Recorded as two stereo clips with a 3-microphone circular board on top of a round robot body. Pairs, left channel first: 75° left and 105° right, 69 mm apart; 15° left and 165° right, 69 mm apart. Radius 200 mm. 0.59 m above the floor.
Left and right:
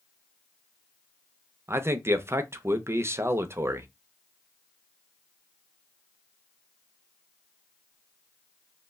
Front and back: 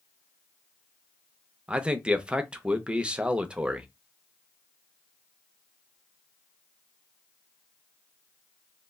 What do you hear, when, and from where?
1.7 s a man speaking: 100° right, 0.6 m